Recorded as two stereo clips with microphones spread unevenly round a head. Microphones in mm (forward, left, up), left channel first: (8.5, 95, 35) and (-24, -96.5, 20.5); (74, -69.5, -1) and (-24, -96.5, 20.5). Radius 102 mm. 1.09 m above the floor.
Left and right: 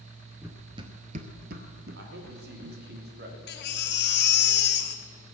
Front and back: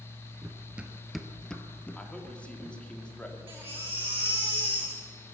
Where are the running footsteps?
Straight behind, 1.2 m; by 2.8 s 60° right, 2.5 m.